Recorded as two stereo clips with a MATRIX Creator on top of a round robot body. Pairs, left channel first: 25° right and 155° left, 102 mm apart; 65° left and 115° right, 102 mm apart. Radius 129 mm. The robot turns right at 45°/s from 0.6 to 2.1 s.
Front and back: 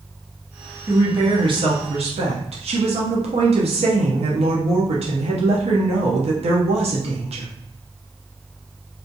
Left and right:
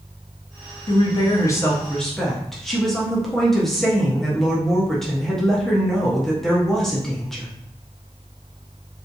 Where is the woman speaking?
100° left, 0.8 m; by 7.5 s 155° left, 0.8 m.